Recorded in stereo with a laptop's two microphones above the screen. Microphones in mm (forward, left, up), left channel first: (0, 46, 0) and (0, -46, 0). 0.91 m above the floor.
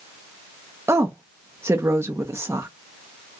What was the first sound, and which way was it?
A woman speaking, 30° right (ahead or behind).